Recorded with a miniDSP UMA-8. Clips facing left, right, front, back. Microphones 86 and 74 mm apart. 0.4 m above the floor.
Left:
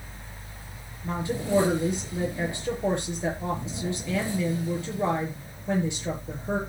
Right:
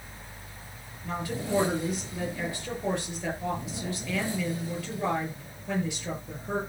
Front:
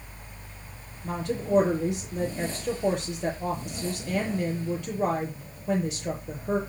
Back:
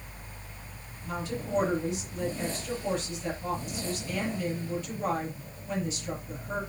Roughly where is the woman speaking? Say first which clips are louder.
Left 3 dB, front 5 dB; ahead left.